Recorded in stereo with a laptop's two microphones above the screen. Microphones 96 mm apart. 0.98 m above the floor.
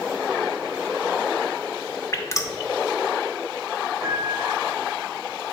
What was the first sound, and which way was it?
Dripping, 30° left (ahead or behind).